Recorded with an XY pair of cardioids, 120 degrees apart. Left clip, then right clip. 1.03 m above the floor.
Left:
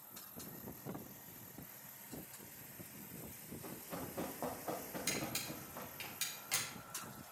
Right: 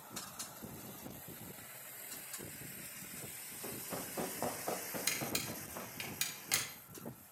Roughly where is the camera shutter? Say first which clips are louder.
Right 3 dB; ahead right.